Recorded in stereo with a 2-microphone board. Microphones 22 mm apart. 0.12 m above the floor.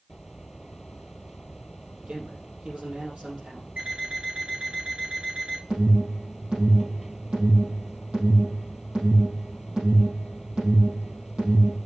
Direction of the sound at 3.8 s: 60° right (ahead or behind).